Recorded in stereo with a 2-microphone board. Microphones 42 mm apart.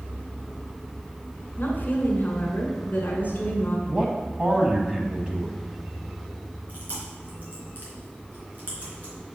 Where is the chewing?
45° right (ahead or behind), 3 m.